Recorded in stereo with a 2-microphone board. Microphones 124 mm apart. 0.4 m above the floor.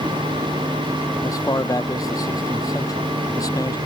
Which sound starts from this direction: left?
A man speaking, at 1.2 s.